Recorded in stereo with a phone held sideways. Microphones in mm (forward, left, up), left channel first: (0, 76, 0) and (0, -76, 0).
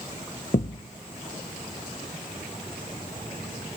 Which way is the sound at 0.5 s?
50° left (ahead or behind).